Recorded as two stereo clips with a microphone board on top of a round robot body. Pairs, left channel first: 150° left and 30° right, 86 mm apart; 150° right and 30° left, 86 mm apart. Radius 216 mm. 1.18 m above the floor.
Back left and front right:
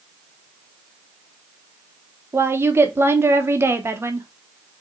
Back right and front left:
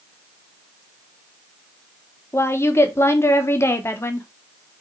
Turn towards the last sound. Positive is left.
turn(degrees=-90)